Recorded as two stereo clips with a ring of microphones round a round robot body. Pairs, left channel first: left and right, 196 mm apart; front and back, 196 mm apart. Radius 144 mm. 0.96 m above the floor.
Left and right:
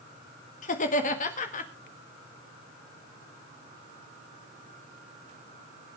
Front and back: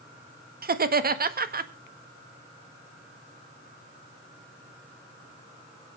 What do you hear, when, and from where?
0.6 s laughter: 145° left, 1.7 m